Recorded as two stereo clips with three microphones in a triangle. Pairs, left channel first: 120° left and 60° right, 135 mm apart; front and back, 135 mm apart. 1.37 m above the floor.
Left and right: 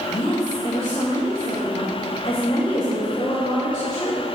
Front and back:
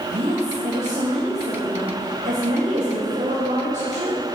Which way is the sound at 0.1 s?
170° left.